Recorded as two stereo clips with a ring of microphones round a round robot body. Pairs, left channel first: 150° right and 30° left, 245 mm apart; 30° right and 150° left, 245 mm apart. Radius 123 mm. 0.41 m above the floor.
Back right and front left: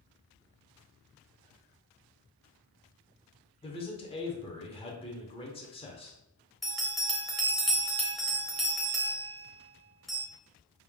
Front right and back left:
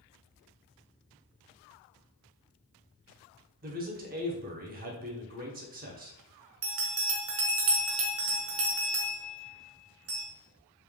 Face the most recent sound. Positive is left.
turn(degrees=120)